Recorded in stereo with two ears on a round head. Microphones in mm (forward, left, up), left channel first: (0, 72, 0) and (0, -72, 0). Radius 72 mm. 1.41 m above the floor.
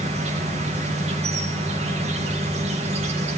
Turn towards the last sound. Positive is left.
turn(degrees=-40)  # may be behind; listen again after turning